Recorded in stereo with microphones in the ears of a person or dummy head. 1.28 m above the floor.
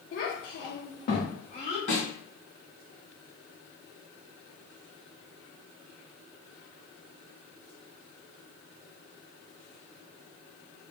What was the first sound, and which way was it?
A child speaking, 40° left (ahead or behind).